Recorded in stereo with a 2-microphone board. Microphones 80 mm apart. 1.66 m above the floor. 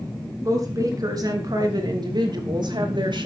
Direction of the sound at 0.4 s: 45° right (ahead or behind).